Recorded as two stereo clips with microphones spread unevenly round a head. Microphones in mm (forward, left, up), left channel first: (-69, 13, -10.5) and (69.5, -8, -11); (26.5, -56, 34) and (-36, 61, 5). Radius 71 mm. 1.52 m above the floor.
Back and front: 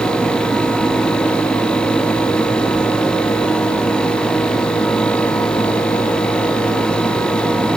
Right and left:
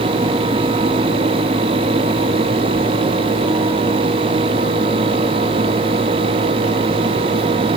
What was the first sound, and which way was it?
Only background noise.